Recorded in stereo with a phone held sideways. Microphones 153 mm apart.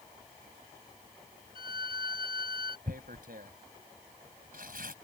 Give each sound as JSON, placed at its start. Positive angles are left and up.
{"t": 1.6, "sound": "a violin", "side_deg": 80}
{"t": 2.9, "sound": "tearing paper", "side_deg": -75}